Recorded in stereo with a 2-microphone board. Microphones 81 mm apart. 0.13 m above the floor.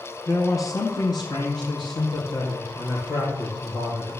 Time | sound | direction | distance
0.3 | a man speaking | 40° left (ahead or behind) | 1.4 m